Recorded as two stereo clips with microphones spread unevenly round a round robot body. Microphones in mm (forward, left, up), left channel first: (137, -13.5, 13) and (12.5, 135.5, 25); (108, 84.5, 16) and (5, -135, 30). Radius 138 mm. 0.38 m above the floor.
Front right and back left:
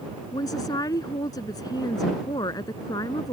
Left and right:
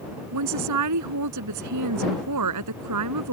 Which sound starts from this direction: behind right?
A woman speaking, at 0.3 s.